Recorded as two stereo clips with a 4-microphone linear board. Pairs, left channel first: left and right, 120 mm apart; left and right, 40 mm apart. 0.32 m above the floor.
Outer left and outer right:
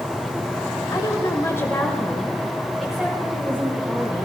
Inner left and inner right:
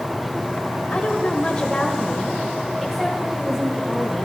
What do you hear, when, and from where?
0.9 s a woman speaking: 35° left (ahead or behind), 1.4 m; by 4.3 s 15° right (ahead or behind), 3 m